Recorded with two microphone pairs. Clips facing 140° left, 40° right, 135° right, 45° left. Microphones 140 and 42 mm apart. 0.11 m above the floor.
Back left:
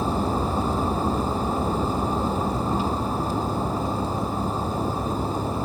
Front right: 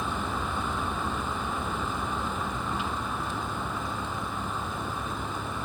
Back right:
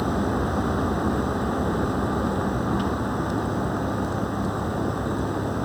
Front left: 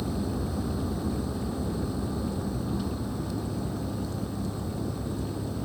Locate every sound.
0.0 s a vehicle: 165° right